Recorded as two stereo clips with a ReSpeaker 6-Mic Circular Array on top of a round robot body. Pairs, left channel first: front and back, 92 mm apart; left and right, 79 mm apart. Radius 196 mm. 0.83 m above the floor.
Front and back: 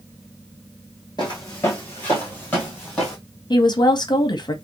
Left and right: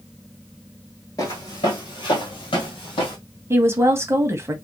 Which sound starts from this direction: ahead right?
A woman speaking, at 3.5 s.